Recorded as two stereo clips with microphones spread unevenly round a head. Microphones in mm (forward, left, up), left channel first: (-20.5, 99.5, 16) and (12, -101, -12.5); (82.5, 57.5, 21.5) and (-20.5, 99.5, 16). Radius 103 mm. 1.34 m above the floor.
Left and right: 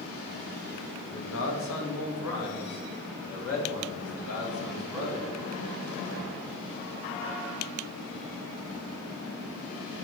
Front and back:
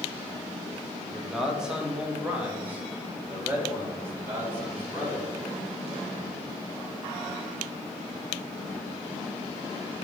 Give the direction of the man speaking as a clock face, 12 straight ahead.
10 o'clock.